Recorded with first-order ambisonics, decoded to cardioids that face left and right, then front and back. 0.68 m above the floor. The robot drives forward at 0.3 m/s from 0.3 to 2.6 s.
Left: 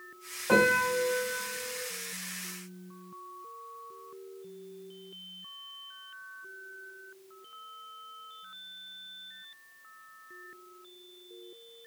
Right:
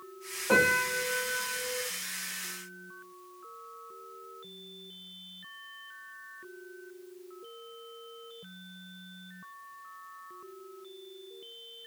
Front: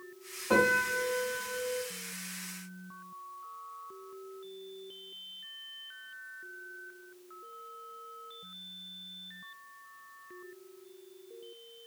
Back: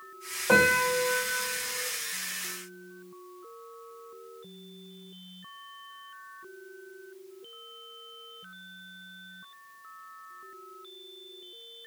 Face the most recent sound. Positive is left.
turn(degrees=170)